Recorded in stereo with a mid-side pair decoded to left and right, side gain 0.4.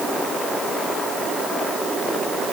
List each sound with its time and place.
Only background noise.